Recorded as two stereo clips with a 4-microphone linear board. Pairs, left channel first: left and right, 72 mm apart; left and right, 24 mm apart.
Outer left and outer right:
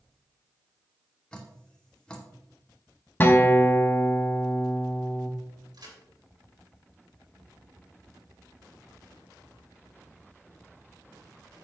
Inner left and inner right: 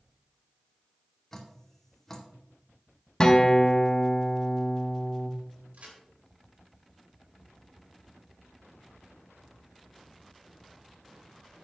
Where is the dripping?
15° left (ahead or behind), 1.8 m.